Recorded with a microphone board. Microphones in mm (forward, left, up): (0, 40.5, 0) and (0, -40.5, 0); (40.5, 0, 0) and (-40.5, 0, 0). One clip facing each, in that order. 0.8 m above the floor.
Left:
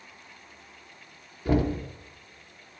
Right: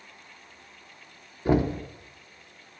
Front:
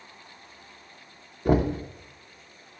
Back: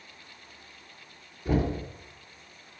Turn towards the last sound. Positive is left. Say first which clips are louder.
# right 2 dB, front 5 dB
turn(degrees=-30)